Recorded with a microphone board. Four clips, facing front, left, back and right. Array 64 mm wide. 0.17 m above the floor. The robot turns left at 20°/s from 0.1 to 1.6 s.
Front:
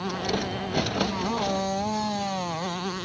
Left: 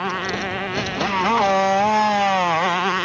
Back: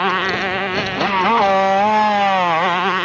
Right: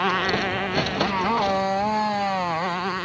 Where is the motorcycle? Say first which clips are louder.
Right 2 dB, back 11 dB; 175° right; by 3.0 s 155° left.